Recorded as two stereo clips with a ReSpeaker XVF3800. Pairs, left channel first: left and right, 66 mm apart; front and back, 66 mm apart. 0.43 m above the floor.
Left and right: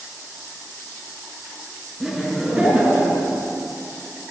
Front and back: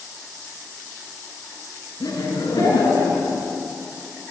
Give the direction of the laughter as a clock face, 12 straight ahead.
12 o'clock.